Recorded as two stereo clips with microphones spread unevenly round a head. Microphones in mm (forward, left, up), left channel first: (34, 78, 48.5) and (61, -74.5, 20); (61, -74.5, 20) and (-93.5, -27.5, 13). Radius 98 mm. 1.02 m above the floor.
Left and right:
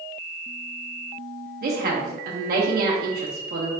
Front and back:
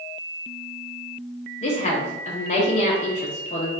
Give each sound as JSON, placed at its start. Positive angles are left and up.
{"t": 1.6, "sound": "a woman speaking", "azimuth_deg": -65, "distance_m": 0.8}